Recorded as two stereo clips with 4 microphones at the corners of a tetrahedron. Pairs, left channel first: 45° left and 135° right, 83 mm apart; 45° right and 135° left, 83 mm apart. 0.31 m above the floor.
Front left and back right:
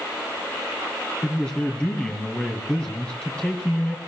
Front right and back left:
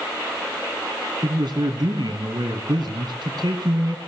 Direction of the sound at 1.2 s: 120° left.